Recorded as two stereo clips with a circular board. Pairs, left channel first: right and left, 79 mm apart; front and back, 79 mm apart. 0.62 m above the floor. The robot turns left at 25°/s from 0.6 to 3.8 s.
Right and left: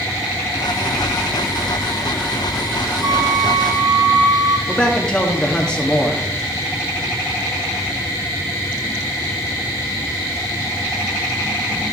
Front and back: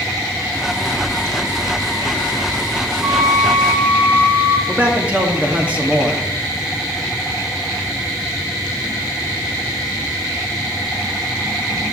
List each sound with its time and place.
3.0 s a flute: 135° left, 1.4 m; by 4.6 s 115° left, 1.4 m
4.7 s a man speaking: 145° right, 0.8 m